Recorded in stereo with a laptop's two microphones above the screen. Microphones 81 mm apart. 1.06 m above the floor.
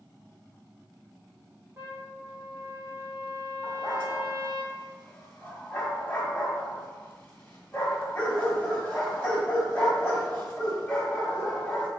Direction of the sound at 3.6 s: 15° left (ahead or behind).